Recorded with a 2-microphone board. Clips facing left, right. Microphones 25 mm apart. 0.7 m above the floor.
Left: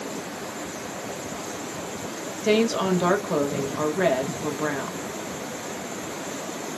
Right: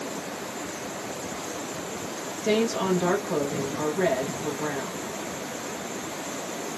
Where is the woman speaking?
45° left (ahead or behind), 1.5 m.